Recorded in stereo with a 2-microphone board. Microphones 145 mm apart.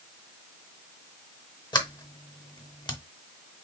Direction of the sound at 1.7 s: 30° left (ahead or behind).